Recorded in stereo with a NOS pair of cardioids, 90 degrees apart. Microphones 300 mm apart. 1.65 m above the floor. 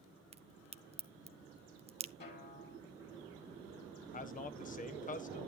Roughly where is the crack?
Ahead.